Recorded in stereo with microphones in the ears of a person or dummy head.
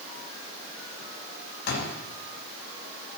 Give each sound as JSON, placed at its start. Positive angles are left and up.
{"t": 1.7, "sound": "a door slam", "side_deg": 65, "distance_m": 8.0}